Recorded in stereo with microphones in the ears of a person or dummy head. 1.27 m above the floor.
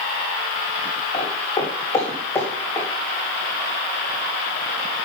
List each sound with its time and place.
1.1 s footsteps: 25° left (ahead or behind), 5.5 m; by 2.9 s 10° left (ahead or behind), 4 m